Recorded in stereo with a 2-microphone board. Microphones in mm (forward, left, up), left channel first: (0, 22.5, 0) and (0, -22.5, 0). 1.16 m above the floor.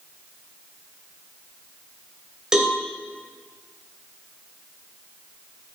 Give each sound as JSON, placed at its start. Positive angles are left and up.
{"t": 2.5, "sound": "a cowbell", "side_deg": -15, "distance_m": 2.5}